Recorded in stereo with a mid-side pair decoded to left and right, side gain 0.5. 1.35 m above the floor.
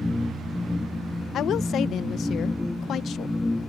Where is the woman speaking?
60° left.